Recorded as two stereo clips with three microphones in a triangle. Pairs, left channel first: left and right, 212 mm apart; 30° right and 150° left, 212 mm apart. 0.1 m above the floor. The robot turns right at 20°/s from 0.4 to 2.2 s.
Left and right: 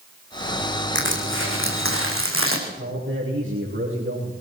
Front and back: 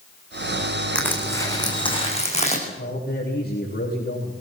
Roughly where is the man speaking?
Right.